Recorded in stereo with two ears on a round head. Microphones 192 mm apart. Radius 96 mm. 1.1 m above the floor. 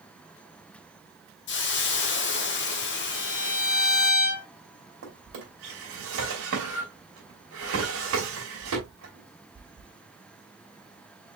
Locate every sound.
1.5 s a hiss: 55° left (ahead or behind), 1.0 m
3.1 s a violin: 40° left (ahead or behind), 1.3 m
5.0 s a drawer: 65° right (ahead or behind), 3 m